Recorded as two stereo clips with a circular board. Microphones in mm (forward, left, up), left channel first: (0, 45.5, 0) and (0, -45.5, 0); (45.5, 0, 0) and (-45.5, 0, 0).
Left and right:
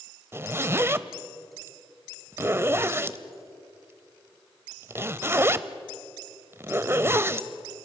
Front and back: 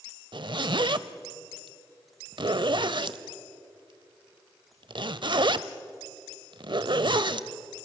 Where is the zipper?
150° right, 0.6 m.